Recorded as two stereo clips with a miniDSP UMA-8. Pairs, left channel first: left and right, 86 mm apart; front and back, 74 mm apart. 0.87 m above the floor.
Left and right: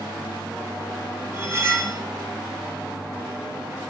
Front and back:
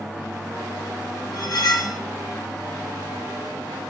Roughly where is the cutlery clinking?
Ahead right.